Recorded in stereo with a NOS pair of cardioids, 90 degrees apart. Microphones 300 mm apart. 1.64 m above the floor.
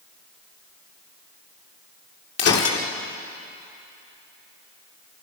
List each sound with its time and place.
2.4 s breaking glass: 55° left, 3 m